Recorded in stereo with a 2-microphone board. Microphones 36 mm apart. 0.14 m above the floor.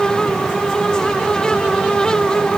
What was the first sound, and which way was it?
Only background noise.